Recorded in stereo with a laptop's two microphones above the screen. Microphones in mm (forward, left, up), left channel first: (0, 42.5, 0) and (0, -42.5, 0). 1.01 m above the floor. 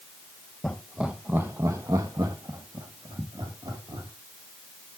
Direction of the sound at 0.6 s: 10° left (ahead or behind).